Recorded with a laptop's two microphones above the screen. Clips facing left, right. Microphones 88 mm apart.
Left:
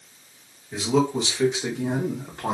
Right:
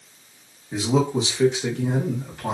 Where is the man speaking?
25° right (ahead or behind), 0.8 m; by 2.5 s 40° left (ahead or behind), 0.8 m.